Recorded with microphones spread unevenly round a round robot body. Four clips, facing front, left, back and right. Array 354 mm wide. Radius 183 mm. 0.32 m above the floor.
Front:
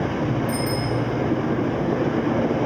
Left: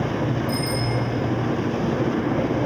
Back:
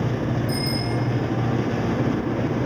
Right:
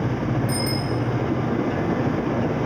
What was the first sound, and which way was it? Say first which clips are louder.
A bicycle bell: even, front 2 dB; 130° right.